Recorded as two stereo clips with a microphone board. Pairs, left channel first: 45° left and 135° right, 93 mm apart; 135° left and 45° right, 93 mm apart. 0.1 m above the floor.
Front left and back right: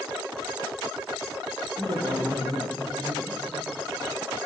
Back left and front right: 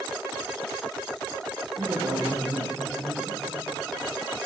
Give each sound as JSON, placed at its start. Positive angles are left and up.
{"t": 1.8, "sound": "a man speaking", "azimuth_deg": -100, "distance_m": 3.0}